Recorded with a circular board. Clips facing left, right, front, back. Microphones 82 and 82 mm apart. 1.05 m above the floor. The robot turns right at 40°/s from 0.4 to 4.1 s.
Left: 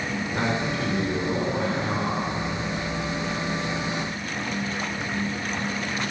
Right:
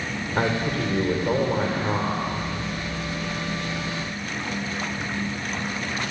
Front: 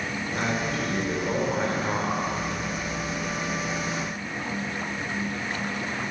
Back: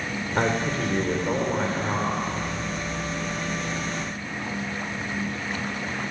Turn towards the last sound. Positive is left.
turn(degrees=10)